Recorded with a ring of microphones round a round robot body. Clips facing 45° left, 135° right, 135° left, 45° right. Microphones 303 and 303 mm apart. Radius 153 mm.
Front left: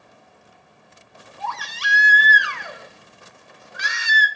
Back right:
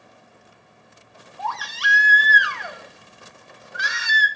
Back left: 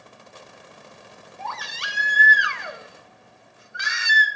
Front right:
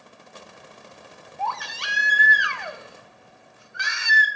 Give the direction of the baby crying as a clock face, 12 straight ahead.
9 o'clock.